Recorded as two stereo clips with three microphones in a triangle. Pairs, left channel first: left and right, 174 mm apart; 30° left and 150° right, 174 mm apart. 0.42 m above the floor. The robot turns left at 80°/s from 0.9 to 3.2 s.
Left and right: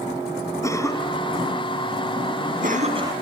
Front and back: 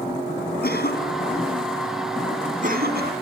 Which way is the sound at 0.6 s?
20° left.